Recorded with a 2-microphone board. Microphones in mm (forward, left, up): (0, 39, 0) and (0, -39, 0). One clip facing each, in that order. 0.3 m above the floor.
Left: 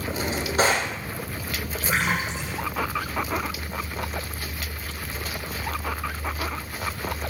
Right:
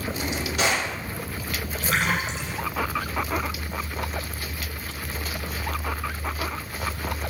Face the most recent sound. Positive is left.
turn(degrees=10)  # may be behind; listen again after turning